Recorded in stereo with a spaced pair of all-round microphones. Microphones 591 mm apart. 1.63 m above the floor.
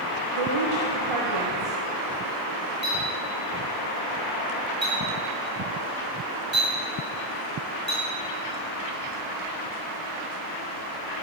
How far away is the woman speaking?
About 1.0 m.